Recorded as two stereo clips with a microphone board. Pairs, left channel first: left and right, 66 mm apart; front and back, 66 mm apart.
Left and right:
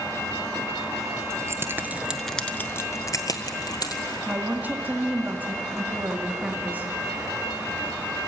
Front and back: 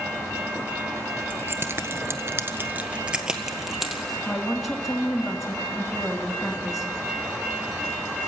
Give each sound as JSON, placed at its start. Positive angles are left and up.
{"t": 1.3, "sound": "keys jangling", "azimuth_deg": -125, "distance_m": 1.7}
{"t": 4.3, "sound": "a woman speaking", "azimuth_deg": -90, "distance_m": 1.7}